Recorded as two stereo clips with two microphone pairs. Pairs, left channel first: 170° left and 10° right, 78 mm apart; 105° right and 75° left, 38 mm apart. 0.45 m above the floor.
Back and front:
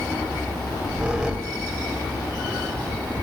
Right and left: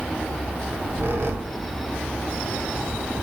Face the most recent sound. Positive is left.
turn(degrees=70)